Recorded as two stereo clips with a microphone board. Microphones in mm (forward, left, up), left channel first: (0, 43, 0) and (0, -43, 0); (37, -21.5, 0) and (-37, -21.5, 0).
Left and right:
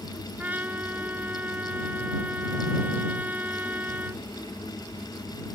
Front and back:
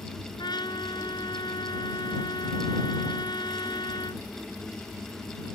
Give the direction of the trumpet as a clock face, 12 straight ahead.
1 o'clock.